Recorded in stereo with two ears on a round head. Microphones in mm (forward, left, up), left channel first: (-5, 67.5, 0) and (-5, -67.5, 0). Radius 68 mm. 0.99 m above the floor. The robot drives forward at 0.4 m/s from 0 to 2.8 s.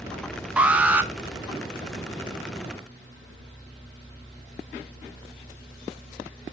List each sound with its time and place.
0.6 s an alarm: 10° right (ahead or behind), 0.7 m